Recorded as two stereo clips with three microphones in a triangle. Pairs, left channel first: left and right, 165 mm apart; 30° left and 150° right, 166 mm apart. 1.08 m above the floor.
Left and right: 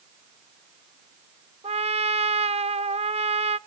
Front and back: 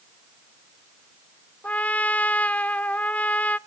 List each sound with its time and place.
1.6 s a trumpet: 50° right, 0.5 m